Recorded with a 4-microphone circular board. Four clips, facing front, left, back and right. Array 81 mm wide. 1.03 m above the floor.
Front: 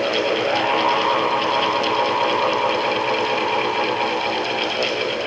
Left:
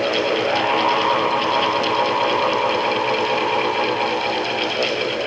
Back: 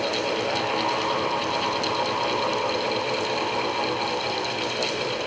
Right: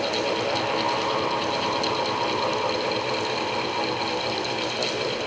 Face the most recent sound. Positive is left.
No sound to turn to.